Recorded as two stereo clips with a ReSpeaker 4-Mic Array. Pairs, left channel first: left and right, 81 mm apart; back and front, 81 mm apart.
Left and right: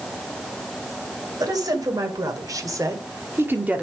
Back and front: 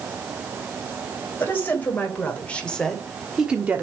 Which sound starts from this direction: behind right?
A woman speaking, at 1.4 s.